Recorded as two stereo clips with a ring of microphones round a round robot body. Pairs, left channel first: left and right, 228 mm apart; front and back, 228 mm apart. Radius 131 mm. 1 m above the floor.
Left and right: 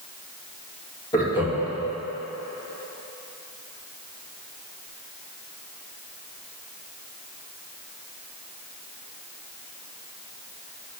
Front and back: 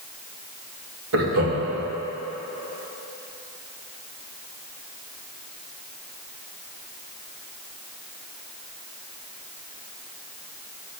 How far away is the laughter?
About 1.9 m.